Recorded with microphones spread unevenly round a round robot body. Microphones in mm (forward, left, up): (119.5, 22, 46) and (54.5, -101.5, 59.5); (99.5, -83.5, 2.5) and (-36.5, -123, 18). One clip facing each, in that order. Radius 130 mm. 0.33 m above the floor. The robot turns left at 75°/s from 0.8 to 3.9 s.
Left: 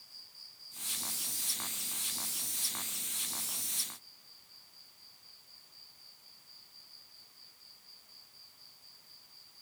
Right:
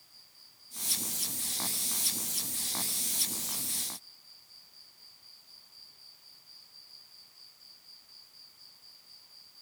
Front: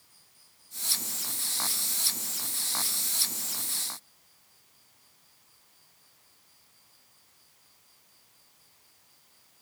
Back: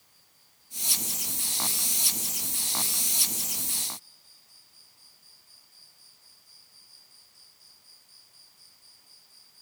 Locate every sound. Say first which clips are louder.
0.0 s an insect: left 1 dB, even; 55° left; by 9.6 s 175° right